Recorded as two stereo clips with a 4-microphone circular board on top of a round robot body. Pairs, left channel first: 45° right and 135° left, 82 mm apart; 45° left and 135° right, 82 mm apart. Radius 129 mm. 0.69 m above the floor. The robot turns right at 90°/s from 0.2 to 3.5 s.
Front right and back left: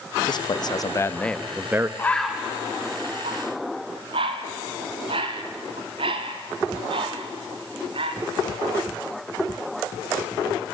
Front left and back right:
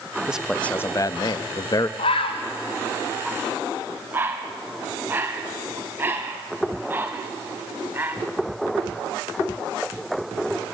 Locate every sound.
0.3 s a man speaking: 60° right, 0.7 m; by 1.9 s 85° left, 0.7 m
2.0 s a bird: 20° left, 0.9 m; by 8.2 s 155° left, 0.9 m